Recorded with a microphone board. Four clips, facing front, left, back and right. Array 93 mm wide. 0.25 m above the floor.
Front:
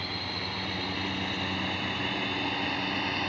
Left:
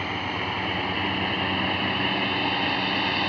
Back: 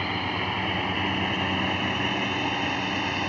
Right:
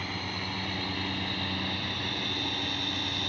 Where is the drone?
140° left; by 3.3 s 105° left.